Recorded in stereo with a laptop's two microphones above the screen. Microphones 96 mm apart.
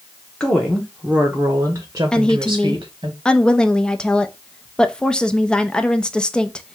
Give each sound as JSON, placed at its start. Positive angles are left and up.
{"t": 0.4, "sound": "a woman speaking", "side_deg": 10, "distance_m": 0.9}
{"t": 2.1, "sound": "a woman speaking", "side_deg": 10, "distance_m": 0.6}